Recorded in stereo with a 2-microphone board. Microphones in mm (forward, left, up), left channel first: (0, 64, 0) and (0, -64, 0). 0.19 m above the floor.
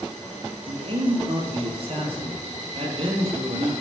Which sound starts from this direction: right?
A man speaking, at 0.7 s.